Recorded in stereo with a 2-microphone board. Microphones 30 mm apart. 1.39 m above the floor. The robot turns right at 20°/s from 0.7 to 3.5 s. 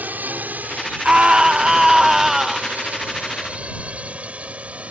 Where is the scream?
35° right; by 2.8 s straight ahead.